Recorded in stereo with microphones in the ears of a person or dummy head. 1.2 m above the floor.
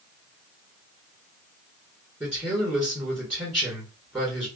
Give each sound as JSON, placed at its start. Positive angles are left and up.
{"t": 2.2, "sound": "a man speaking", "side_deg": -5, "distance_m": 1.4}